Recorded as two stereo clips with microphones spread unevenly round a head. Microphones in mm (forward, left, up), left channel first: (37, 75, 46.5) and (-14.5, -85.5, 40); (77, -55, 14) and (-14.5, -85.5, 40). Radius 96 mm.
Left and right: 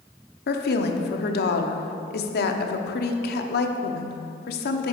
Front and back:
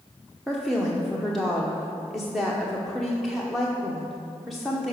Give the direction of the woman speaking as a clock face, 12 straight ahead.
8 o'clock.